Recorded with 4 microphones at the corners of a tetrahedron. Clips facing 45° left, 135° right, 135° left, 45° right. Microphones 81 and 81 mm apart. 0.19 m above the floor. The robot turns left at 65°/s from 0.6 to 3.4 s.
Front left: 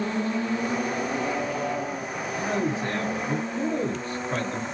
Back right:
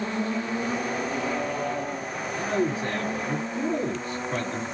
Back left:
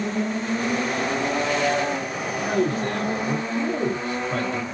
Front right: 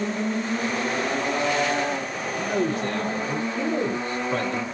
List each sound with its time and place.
2.4 s a man speaking: 130° left, 1.5 m; by 4.6 s 65° left, 1.5 m